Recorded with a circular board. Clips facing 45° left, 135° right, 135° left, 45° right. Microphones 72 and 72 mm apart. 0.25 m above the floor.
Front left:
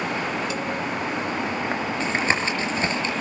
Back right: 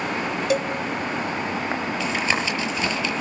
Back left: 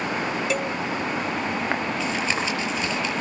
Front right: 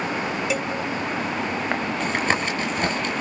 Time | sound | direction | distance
0.5 | a cowbell | 135° right | 1.0 m
2.0 | tapping | 10° right | 6 m